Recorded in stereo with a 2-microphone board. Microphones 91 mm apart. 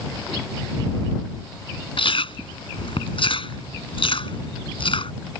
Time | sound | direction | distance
2.0 | chewing | 70° left (ahead or behind) | ?